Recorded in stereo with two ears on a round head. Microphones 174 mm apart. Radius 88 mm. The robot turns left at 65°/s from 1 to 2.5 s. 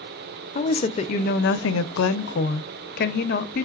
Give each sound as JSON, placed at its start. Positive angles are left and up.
{"t": 0.6, "sound": "a woman speaking", "azimuth_deg": 145, "distance_m": 0.5}